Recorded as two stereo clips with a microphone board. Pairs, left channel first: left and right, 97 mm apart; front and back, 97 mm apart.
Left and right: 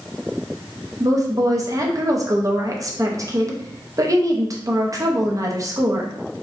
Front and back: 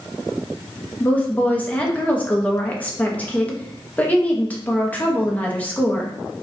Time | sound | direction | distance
1.0 | a woman speaking | 65° right | 0.7 m